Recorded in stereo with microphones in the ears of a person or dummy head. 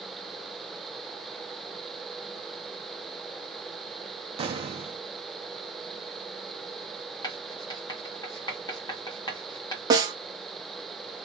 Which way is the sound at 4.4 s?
35° right (ahead or behind).